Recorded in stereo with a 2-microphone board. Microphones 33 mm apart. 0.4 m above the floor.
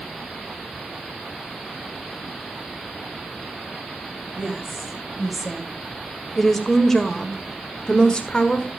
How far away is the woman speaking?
About 3.5 m.